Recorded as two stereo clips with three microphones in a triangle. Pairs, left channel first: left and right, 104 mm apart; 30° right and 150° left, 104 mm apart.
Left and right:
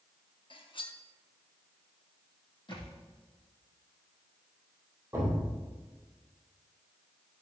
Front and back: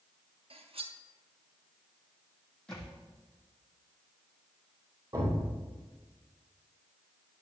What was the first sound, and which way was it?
Cutlery clinking, 125° left.